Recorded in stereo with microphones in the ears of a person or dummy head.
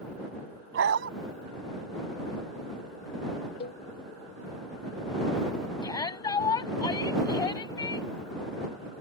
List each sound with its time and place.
0.7 s a dog barking: 60° right (ahead or behind)
3.6 s a cowbell: 35° left (ahead or behind)
5.8 s a shout: 20° left (ahead or behind)